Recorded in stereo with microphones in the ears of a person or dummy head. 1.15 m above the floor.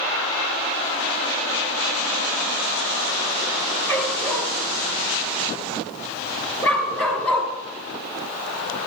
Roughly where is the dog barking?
Centre.